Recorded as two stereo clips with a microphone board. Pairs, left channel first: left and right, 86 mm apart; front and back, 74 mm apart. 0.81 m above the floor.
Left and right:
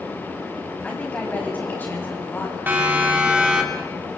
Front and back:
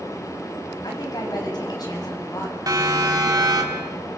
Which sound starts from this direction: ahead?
A woman speaking, at 0.8 s.